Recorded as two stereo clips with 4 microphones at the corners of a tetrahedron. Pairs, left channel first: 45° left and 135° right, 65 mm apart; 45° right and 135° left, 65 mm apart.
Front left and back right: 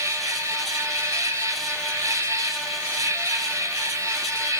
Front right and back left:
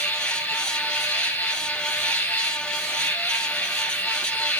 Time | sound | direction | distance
0.0 | an insect | 110° right | 2.5 m